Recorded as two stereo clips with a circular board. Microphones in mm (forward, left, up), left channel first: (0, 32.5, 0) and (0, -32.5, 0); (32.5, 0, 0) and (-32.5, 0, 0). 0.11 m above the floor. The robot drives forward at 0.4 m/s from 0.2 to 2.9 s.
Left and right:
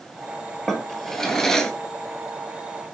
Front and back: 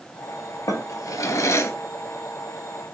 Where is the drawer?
5° left, 0.8 m; by 1.7 s 15° left, 0.5 m.